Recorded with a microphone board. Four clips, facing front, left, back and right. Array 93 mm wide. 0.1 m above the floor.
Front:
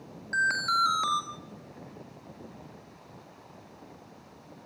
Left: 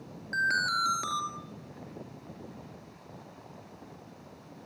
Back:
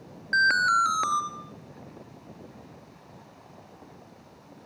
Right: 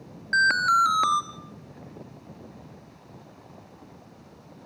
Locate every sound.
0.3 s an alarm: 130° right, 1.7 m